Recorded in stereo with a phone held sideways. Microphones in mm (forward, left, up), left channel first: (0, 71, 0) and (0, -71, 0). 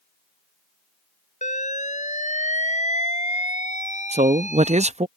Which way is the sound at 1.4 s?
60° left (ahead or behind).